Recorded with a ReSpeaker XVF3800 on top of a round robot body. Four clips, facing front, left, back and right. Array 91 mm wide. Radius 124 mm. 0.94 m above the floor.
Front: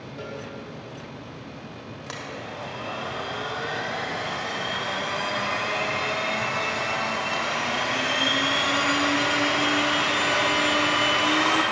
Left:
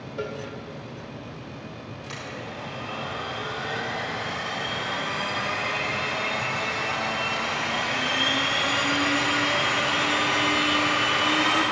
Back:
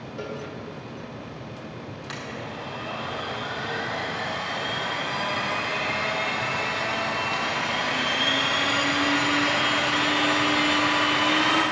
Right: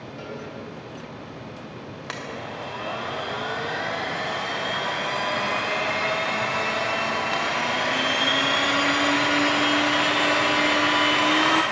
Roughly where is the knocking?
No knocking in this recording.